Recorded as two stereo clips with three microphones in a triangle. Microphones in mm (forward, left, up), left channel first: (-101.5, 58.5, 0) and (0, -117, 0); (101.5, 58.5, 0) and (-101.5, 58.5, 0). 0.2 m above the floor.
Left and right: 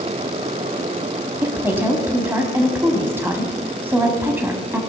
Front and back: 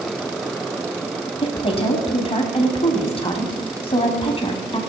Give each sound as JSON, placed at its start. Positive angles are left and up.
{"t": 1.4, "sound": "a woman speaking", "azimuth_deg": 5, "distance_m": 1.1}